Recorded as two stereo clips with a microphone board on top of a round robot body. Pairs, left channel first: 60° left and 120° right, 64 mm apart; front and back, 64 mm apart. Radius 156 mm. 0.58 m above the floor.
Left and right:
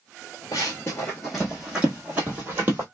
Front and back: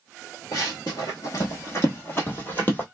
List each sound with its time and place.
0.5 s running footsteps: 30° left, 0.6 m; by 2.8 s 60° right, 1.3 m